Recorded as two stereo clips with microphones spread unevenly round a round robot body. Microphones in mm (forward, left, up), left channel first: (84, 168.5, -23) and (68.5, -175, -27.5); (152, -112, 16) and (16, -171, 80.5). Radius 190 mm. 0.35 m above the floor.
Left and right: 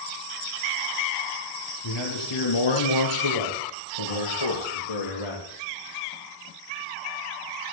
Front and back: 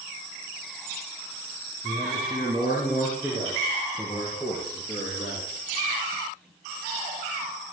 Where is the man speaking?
130° left, 5 m; by 5.5 s 105° left, 5.5 m.